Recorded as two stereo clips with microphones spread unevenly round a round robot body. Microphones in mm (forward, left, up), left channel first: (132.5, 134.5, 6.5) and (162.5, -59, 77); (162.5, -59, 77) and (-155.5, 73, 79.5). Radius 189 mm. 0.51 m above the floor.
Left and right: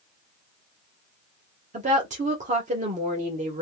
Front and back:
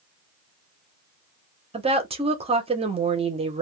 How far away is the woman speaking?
About 1.1 m.